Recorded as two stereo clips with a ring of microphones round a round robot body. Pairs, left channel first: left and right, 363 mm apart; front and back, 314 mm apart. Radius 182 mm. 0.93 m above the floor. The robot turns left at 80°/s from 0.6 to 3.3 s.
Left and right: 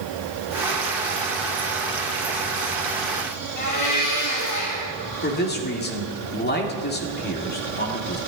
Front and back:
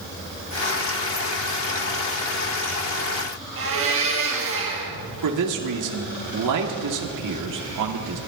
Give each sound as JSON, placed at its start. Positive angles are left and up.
{"t": 3.6, "sound": "a blender", "azimuth_deg": 135, "distance_m": 4.0}
{"t": 5.2, "sound": "a man speaking", "azimuth_deg": 155, "distance_m": 1.9}